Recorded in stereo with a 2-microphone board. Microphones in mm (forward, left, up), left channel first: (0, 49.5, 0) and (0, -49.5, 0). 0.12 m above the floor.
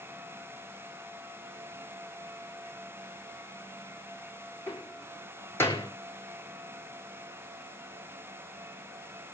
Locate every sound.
4.7 s a door slam: 25° left (ahead or behind), 4.5 m